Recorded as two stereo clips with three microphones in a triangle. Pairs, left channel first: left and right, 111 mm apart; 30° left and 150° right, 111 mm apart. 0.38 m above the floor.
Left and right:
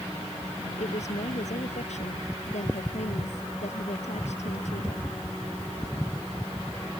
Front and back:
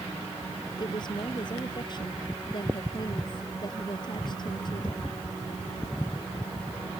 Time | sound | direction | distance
0.8 | a woman speaking | 80° left | ?